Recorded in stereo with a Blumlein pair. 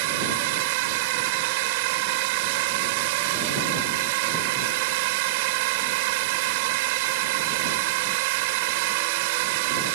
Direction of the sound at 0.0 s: 45° right.